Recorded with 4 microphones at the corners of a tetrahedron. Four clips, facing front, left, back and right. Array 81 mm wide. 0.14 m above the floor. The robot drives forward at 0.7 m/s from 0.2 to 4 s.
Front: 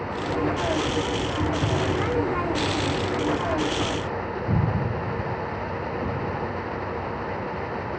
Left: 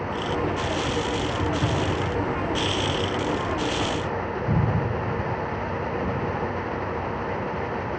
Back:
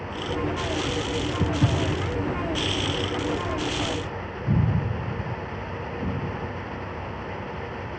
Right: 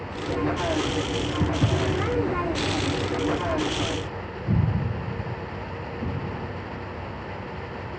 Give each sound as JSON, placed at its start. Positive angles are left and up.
{"t": 1.4, "sound": "footsteps", "azimuth_deg": -130, "distance_m": 0.7}